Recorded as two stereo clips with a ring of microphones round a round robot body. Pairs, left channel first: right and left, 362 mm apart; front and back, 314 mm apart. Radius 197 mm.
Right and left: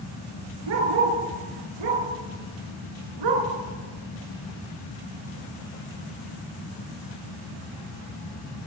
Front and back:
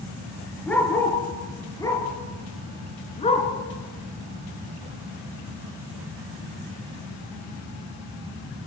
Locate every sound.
0.7 s a dog barking: 85° left, 6 m; by 3.5 s 70° left, 4.5 m